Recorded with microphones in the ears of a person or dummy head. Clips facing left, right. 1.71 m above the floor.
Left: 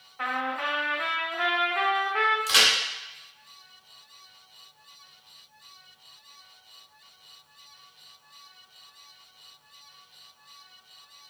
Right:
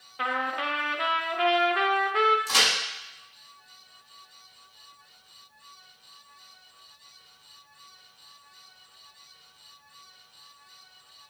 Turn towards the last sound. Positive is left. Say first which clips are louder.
# even
turn(degrees=20)  # may be behind; listen again after turning